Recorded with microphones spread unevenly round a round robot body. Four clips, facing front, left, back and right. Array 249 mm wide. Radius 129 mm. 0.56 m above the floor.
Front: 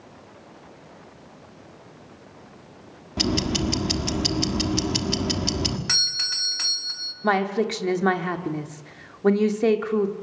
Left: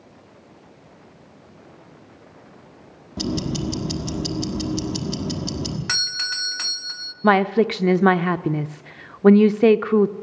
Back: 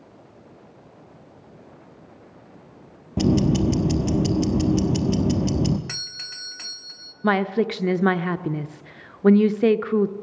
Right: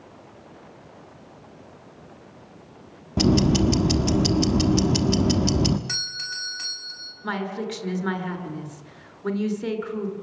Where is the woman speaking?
95° left, 1.0 m.